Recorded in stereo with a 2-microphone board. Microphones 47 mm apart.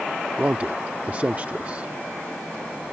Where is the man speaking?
35° right (ahead or behind).